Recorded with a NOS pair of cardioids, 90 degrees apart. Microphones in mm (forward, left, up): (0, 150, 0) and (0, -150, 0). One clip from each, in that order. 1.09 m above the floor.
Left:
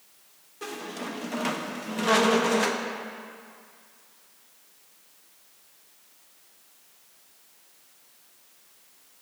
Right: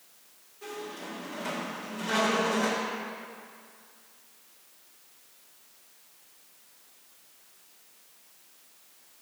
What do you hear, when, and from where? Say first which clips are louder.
0.6 s a squeak: left 4 dB; 65° left, 0.8 m